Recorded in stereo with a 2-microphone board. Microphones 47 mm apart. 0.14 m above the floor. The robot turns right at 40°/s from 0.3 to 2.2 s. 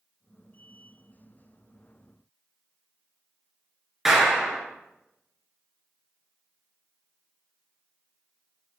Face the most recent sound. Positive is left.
turn(degrees=-5)  # may be behind; listen again after turning